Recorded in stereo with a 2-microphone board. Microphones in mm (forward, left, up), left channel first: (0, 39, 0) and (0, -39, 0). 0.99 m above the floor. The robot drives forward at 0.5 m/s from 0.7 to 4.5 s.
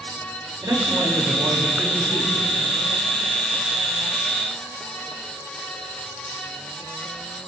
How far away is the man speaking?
About 2 m.